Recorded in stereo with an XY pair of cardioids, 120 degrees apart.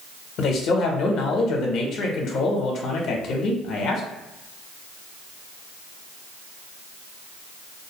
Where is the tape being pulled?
I don't hear tape being pulled.